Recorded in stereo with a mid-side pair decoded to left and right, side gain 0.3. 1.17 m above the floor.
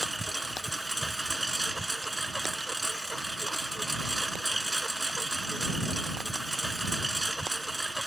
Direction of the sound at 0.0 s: 10° right.